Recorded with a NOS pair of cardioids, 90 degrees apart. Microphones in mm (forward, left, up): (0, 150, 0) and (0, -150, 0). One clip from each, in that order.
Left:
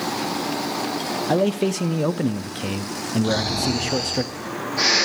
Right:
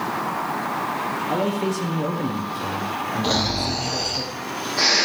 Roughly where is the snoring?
Ahead.